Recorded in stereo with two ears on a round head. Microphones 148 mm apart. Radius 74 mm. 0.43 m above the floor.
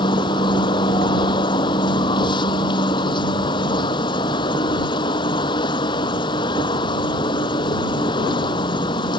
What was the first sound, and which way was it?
An insect, 30° left (ahead or behind).